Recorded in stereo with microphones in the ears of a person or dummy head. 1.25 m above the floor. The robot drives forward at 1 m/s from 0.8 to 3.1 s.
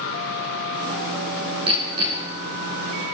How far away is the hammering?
About 6 m.